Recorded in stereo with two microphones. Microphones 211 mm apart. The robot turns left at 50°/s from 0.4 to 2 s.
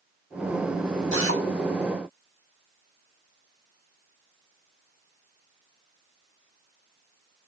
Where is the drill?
65° right (ahead or behind), 7 m; by 1.4 s 80° right, 7 m.